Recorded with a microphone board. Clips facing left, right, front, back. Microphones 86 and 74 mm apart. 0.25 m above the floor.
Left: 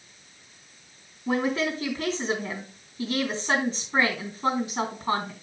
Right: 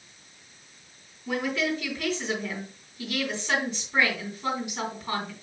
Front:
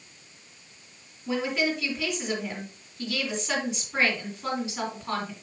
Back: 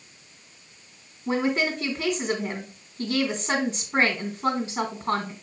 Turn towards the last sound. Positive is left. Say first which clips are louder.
# left 2 dB, back 3 dB
turn(degrees=140)